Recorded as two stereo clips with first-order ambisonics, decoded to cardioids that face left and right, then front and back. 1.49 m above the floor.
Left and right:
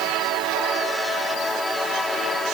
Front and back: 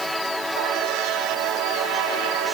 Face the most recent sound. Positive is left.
No sound to turn to.